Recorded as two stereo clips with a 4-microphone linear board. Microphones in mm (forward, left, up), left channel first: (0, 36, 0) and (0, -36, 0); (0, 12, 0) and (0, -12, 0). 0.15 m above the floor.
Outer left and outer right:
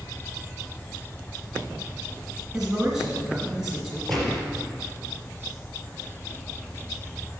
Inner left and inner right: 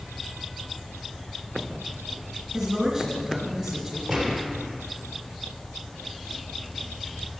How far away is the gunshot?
About 3 m.